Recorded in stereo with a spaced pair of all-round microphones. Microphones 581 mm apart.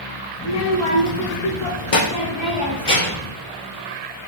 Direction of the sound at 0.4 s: 40° left (ahead or behind).